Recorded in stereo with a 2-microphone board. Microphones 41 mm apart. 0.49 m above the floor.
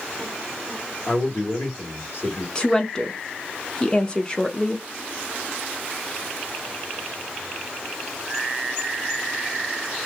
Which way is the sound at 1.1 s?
60° left (ahead or behind).